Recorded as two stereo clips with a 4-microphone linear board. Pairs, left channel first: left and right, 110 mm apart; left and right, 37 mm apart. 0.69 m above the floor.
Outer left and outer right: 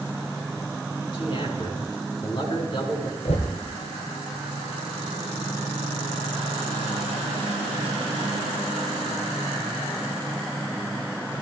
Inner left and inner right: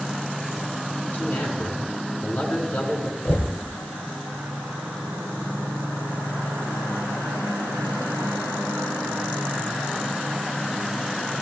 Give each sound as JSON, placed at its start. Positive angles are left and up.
{"t": 1.1, "sound": "a man speaking", "side_deg": 45, "distance_m": 6.5}
{"t": 3.2, "sound": "knocking", "side_deg": 70, "distance_m": 2.5}